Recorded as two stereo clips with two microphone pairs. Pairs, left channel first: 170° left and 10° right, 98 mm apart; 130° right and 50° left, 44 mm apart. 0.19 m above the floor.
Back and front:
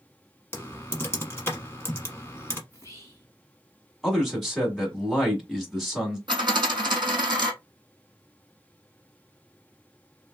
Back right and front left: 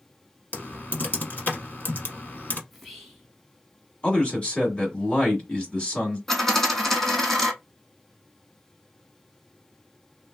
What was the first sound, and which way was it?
Typing on a keyboard, 130° right.